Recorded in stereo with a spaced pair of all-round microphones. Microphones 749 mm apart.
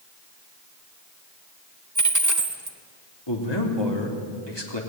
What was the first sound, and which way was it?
A dropped coin, 25° right (ahead or behind).